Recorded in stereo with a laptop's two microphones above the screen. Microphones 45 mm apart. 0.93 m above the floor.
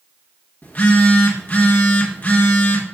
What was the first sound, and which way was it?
A phone buzzing, 35° left (ahead or behind).